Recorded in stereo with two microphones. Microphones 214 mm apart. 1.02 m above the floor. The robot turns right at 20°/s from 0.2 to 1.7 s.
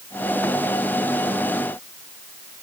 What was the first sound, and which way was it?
Only background noise.